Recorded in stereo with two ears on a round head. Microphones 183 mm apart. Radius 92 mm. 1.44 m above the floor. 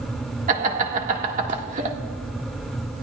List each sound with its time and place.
0.5 s laughter: 40° right (ahead or behind), 1.7 m